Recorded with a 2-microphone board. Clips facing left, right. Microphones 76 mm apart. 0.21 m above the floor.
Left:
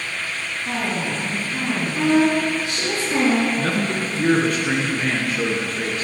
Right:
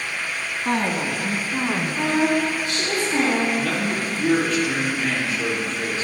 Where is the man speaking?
65° left (ahead or behind), 3 m.